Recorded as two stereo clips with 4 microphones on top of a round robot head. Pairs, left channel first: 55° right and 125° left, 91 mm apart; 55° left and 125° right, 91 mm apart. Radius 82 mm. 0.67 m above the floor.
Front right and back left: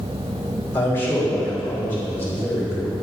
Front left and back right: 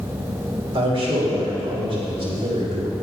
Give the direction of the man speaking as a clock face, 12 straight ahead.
4 o'clock.